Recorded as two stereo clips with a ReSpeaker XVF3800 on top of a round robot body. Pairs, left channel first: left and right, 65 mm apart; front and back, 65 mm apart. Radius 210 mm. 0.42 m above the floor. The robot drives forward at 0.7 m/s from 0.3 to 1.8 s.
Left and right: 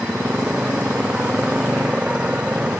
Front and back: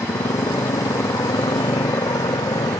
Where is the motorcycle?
15° right.